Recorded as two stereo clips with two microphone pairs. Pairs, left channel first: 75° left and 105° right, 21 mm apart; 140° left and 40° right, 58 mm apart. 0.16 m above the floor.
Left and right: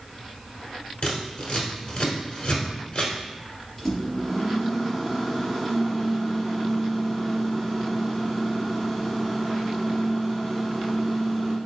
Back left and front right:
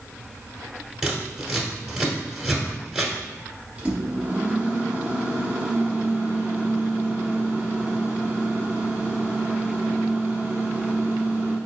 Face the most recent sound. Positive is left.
turn(degrees=-5)